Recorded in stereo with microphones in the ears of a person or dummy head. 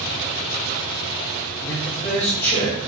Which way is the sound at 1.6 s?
15° left (ahead or behind).